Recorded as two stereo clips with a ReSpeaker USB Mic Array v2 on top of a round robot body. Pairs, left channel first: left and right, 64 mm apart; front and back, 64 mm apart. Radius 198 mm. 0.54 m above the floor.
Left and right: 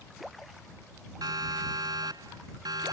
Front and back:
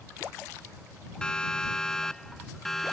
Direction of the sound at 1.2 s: 80° right.